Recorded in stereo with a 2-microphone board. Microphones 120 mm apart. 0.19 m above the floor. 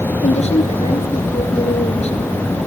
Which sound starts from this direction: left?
A woman speaking, at 0.2 s.